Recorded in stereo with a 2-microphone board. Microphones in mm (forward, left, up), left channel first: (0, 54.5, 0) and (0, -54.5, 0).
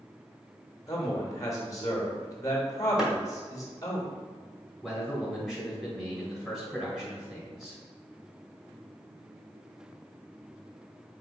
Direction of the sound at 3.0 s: 5° right (ahead or behind).